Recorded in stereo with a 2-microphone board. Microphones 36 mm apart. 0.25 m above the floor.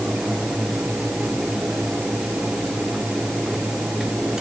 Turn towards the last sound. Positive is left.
No sound to turn to.